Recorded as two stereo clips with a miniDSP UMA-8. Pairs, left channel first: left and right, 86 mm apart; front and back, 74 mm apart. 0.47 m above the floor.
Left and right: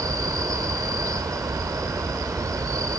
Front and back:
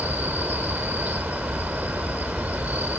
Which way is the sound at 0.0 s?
120° right.